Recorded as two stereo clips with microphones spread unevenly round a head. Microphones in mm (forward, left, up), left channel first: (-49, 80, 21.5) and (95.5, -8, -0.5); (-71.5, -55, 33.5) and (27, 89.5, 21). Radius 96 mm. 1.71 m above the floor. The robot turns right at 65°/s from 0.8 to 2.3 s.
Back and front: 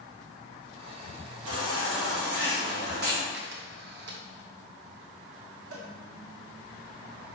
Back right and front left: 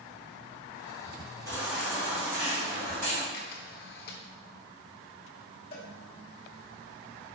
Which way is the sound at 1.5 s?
50° right.